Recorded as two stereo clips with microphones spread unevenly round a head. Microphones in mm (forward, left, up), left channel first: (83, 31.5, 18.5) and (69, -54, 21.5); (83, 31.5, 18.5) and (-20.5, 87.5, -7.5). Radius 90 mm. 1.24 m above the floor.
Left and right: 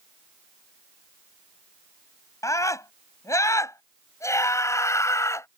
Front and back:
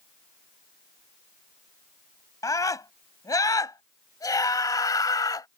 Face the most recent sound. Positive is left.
turn(degrees=25)